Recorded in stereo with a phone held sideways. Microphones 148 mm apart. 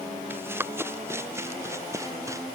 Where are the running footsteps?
15° right (ahead or behind); by 2.5 s 20° right (ahead or behind).